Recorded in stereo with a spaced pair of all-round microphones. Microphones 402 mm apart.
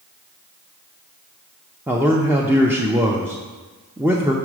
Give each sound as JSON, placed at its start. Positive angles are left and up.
{"t": 1.9, "sound": "a man speaking", "side_deg": -5, "distance_m": 0.5}